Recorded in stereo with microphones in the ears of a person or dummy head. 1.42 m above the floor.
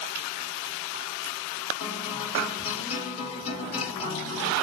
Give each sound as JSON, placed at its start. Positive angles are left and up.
{"t": 1.8, "sound": "a guitar", "side_deg": 35, "distance_m": 2.5}